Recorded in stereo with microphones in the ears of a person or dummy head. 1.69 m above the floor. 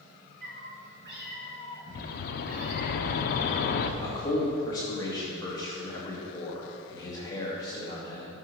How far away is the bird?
About 0.6 m.